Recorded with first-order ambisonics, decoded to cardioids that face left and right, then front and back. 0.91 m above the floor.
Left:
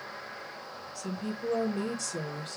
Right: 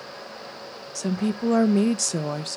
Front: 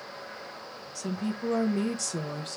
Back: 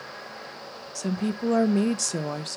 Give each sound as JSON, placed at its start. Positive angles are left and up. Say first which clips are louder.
{"t": 0.9, "sound": "a woman speaking", "louder": "right 10 dB, back 4 dB", "azimuth_deg": -120, "distance_m": 0.6}